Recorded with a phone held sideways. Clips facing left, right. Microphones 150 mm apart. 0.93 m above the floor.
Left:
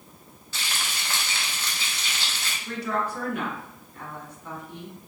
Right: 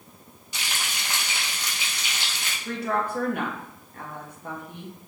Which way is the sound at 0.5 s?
15° right (ahead or behind).